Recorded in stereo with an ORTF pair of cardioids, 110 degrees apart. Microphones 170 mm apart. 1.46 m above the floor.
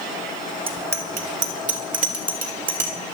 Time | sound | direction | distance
0.7 | a bicycle bell | 35° right | 2.5 m